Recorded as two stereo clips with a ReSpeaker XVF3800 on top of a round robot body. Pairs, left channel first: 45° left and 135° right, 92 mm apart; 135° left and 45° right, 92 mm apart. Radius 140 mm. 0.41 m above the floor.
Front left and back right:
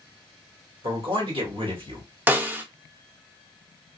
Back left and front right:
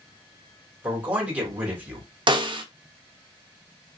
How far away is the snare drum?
About 1.0 m.